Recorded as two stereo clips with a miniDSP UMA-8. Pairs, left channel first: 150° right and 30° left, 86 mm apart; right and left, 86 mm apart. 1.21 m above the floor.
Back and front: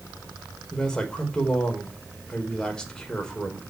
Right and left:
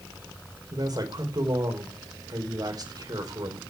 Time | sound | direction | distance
0.7 | a man speaking | 130° left | 5 m